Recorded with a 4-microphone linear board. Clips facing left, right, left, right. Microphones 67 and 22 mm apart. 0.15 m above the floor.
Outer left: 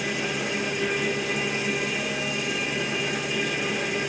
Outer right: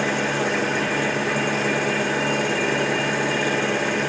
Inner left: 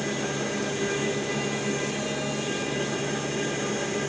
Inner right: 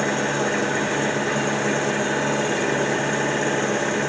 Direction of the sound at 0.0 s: 60° right (ahead or behind).